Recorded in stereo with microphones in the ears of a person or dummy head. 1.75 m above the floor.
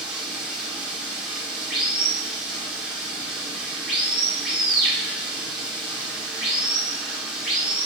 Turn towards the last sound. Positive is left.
turn(degrees=-5)  # may be behind; listen again after turning